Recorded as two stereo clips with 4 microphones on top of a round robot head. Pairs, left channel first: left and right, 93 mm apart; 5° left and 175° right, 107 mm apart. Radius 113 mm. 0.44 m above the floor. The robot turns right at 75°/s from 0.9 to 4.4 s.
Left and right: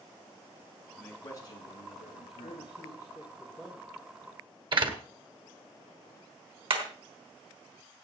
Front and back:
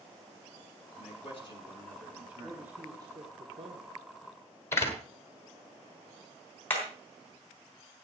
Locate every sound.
1.0 s a man speaking: 5° left, 6 m; by 2.8 s 145° left, 6 m
2.4 s a man speaking: 90° left, 2.0 m; by 4.0 s 155° right, 2.0 m
4.7 s a door slam: 65° right, 2 m
6.7 s hammering: 70° right, 3.5 m